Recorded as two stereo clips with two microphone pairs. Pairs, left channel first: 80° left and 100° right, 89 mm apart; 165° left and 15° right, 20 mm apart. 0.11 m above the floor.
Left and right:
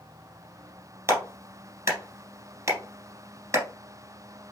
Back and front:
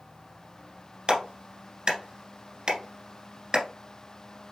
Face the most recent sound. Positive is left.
turn(degrees=-50)